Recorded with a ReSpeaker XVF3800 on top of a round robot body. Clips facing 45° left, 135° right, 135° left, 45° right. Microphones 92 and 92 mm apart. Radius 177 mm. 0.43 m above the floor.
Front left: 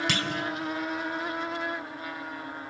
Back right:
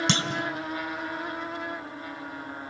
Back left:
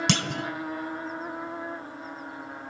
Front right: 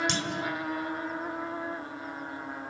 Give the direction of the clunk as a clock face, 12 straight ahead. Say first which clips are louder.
Back right 2 dB, back left 3 dB; 7 o'clock.